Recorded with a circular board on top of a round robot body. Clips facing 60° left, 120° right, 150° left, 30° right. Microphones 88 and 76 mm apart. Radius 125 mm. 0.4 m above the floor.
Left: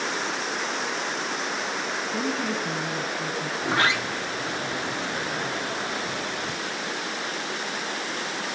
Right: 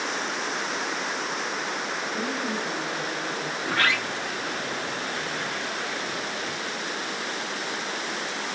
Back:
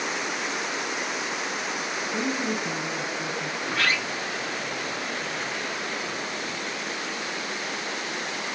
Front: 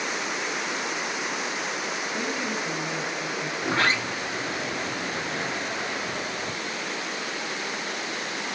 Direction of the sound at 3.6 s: 5° left.